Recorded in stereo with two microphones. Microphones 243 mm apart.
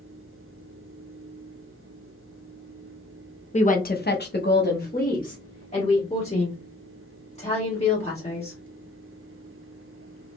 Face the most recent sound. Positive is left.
turn(degrees=25)  # may be behind; listen again after turning